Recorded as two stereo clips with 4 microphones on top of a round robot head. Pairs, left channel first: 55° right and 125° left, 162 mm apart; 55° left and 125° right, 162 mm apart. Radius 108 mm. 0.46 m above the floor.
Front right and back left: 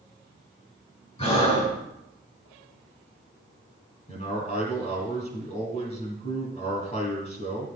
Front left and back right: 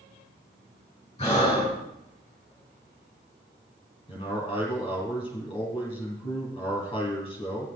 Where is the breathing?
5° right, 4.5 m.